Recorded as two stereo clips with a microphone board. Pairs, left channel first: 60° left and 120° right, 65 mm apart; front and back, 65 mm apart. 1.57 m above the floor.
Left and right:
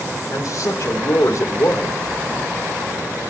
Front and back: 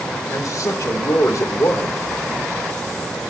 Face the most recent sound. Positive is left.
turn(degrees=30)